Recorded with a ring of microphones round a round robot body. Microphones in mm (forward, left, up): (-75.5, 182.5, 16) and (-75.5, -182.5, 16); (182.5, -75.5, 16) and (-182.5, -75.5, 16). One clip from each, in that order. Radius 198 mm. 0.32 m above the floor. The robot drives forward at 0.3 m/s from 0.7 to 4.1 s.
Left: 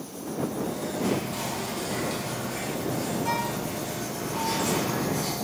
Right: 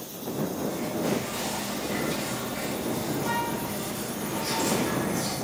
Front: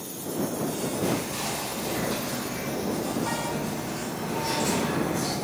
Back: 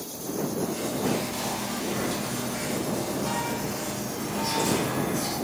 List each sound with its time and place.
1.0 s whispering: 40° left, 0.9 m; by 5.3 s 165° left, 1.1 m